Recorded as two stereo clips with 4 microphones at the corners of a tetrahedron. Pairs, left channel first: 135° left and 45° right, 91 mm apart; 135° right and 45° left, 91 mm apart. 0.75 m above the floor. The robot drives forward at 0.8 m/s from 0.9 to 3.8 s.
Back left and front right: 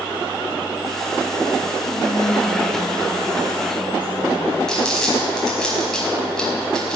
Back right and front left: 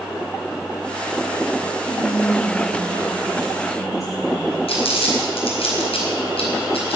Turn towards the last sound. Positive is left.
turn(degrees=-140)